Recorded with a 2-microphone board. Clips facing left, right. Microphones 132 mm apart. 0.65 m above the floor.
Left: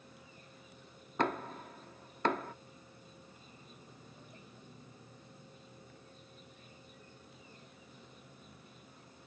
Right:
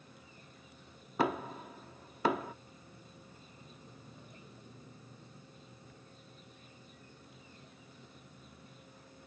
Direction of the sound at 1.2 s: 5° right (ahead or behind).